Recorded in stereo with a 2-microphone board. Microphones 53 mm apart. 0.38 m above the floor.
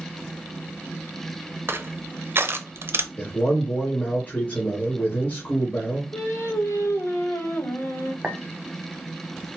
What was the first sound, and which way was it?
Crushing, 50° right (ahead or behind).